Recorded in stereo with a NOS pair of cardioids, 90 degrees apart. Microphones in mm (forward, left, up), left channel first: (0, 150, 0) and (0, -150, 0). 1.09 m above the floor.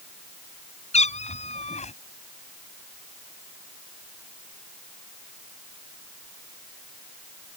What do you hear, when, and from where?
0.9 s a cat meowing: 20° left